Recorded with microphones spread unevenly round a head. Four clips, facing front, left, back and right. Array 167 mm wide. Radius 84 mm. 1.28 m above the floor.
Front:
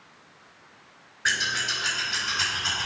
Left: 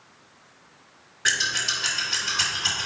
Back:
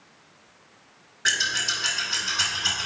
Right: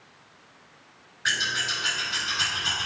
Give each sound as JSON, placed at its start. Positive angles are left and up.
{"t": 1.2, "sound": "scissors", "azimuth_deg": 140, "distance_m": 2.5}